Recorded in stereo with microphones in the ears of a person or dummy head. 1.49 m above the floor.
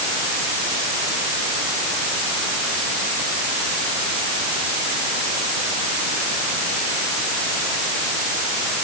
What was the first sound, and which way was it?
Only background noise.